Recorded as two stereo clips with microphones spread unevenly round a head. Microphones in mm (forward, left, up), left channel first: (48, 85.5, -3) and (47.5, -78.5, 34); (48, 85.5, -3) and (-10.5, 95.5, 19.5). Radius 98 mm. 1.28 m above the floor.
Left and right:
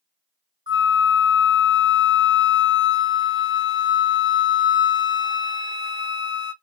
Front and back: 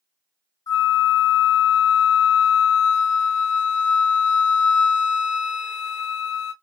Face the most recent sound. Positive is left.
turn(degrees=-55)